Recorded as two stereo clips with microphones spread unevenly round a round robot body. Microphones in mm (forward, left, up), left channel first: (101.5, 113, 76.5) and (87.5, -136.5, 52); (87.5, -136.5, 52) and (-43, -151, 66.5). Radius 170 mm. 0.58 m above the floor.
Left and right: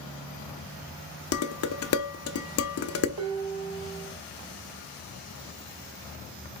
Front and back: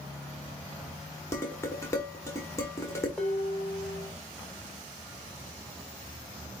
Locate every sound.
1.3 s dishes clattering: 70° left, 0.9 m
3.2 s dishes clattering: 80° right, 1.8 m